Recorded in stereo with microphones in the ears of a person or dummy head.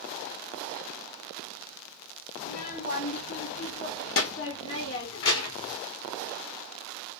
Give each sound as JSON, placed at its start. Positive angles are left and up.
{"t": 2.4, "sound": "a child speaking", "side_deg": 45, "distance_m": 1.8}